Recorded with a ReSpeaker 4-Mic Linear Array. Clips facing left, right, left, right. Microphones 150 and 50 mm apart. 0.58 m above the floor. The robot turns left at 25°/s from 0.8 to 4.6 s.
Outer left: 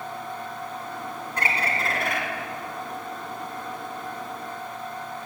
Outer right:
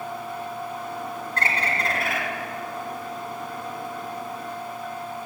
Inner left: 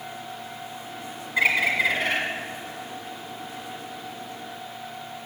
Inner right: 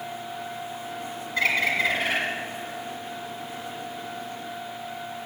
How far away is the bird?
About 2 m.